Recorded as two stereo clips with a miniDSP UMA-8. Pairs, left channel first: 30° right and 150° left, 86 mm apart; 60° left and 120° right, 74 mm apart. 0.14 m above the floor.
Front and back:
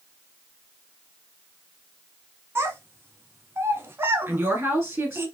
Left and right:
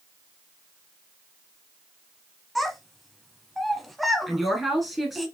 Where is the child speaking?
150° left, 0.9 m.